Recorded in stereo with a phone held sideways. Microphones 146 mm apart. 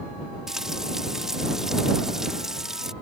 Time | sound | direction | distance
0.5 | frying | 5° right (ahead or behind) | ?